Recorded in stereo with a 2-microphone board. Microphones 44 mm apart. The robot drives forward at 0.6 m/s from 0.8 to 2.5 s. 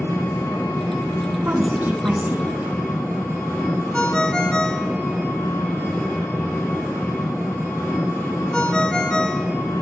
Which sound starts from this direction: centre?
A ringtone, at 3.9 s.